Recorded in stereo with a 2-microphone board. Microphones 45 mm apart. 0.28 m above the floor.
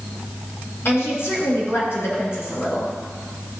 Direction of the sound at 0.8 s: 65° left (ahead or behind).